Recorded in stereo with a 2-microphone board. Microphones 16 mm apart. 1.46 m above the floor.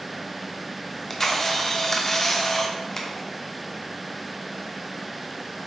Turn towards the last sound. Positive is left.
turn(degrees=20)  # may be behind; listen again after turning